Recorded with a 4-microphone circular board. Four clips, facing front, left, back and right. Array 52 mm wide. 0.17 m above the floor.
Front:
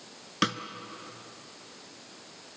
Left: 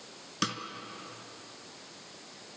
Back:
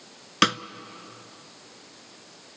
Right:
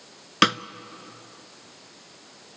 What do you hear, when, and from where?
0.4 s a snare drum: 115° right, 0.6 m